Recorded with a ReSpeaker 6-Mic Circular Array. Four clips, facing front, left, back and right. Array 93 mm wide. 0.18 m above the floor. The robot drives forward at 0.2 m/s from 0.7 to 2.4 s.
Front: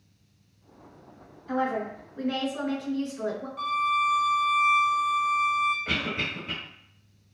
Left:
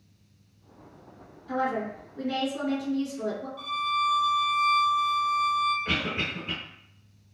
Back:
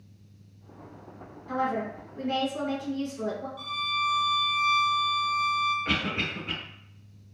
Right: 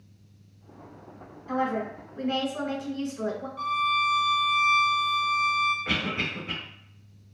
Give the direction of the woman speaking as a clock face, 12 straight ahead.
3 o'clock.